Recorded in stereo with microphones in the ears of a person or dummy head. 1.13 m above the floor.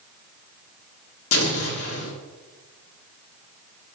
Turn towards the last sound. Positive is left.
turn(degrees=70)  # may be behind; listen again after turning